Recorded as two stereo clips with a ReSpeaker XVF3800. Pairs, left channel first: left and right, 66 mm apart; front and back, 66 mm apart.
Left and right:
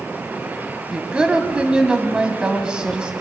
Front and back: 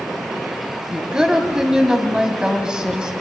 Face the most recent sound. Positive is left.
turn(degrees=-130)